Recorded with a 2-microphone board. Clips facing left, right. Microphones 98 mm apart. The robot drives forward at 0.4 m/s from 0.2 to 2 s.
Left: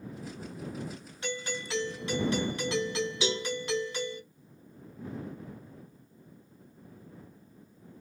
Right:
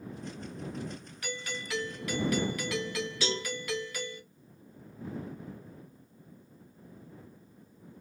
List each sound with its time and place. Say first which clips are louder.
1.2 s a doorbell: left 4 dB; 25° left (ahead or behind), 1.0 m; by 4.2 s 30° left (ahead or behind), 0.9 m
3.2 s a cowbell: left 1 dB; 15° left (ahead or behind), 1.1 m